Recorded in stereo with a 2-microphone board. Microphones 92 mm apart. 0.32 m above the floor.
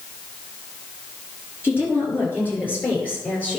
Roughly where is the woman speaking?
Left.